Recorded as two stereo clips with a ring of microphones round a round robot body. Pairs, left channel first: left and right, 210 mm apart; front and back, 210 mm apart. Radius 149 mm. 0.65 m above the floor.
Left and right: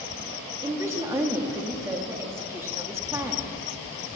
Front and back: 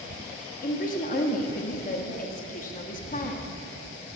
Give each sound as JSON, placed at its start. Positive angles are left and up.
{"t": 0.6, "sound": "a woman speaking", "azimuth_deg": -20, "distance_m": 1.0}